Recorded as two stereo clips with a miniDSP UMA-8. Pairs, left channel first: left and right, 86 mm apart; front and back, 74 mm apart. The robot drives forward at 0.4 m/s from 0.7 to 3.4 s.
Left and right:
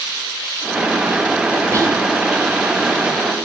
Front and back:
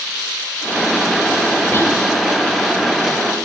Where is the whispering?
50° right, 0.6 m; by 2.0 s 60° right, 0.5 m.